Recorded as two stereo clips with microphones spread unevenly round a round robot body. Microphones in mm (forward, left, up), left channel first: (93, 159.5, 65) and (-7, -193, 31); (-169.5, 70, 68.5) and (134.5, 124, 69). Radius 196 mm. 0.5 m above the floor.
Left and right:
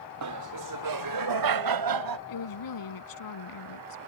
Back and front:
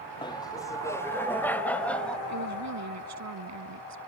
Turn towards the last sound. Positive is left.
turn(degrees=40)